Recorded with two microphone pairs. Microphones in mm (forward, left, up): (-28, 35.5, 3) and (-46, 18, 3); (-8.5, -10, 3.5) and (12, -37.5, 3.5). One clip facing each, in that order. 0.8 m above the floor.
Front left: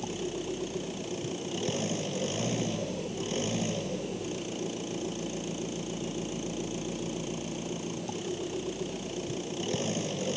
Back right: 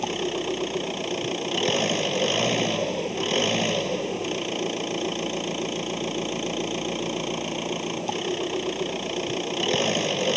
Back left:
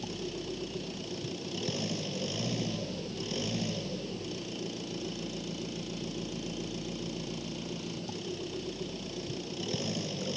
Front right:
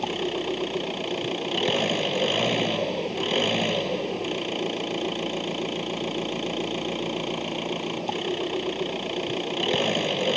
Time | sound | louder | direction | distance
0.0 | an engine running | back right 8 dB, front right 11 dB | 90° right | ?